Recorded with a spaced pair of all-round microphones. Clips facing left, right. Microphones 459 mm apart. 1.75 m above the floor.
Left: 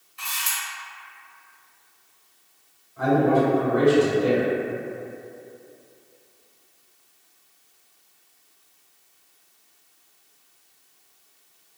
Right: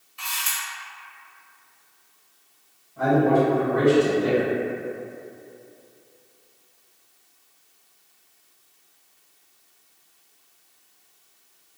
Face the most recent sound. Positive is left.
turn(degrees=-50)  # may be behind; listen again after turning